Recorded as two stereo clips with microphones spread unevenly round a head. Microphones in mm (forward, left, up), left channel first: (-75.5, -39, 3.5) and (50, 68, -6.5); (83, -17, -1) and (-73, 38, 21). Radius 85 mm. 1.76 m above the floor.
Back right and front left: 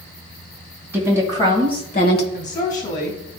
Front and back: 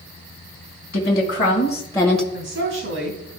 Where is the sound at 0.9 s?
60° right, 2 m; by 2.2 s 110° right, 1.1 m.